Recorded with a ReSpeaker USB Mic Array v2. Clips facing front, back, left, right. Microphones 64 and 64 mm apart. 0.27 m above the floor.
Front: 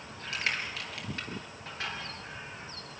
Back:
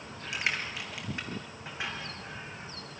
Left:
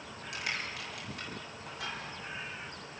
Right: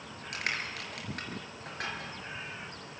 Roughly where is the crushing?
Right.